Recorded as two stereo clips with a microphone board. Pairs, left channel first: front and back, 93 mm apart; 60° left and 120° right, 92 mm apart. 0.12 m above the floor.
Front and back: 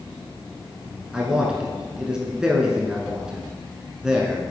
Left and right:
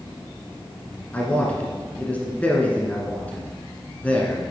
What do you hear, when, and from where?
1.1 s a man speaking: 110° left, 1.1 m